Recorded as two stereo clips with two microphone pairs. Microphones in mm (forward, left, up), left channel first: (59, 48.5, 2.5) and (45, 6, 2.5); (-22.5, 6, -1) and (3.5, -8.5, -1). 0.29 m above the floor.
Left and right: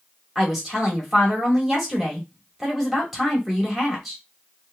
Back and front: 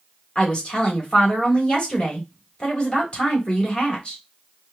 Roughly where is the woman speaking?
Behind left.